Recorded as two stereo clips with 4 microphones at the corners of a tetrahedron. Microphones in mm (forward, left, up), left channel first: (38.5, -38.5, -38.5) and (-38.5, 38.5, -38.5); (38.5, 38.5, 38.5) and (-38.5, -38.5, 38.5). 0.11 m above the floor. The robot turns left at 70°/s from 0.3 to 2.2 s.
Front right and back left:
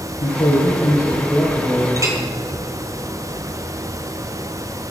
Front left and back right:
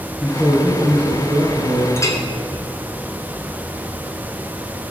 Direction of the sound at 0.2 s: 45° right.